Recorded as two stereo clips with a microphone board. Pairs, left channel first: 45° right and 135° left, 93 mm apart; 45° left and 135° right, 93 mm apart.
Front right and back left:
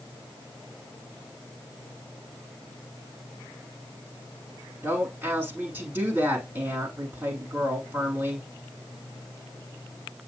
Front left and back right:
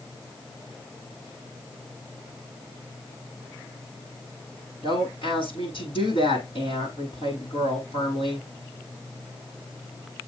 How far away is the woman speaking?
About 6.5 m.